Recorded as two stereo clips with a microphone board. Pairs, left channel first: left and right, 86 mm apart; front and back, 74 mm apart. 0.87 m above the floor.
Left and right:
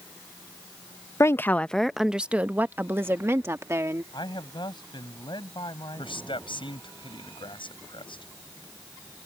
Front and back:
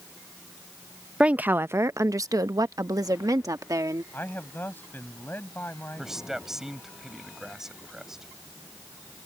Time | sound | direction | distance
1.2 | a woman speaking | 115° left | ?
4.1 | a man speaking | 65° left | ?
6.0 | a man speaking | 95° left | ?